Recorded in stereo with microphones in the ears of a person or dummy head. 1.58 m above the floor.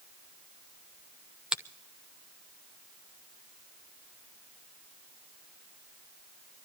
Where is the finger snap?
Centre (ahead or behind), 0.6 m.